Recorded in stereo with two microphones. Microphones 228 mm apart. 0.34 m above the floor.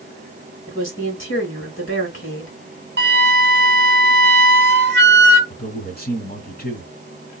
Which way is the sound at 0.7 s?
65° left (ahead or behind).